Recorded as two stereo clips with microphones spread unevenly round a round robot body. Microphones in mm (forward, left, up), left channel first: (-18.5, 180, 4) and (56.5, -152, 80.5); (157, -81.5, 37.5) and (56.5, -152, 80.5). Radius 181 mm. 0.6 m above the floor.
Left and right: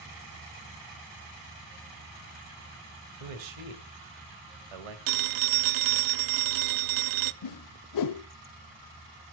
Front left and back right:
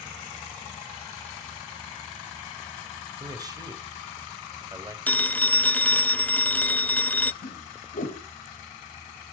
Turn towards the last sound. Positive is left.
turn(degrees=65)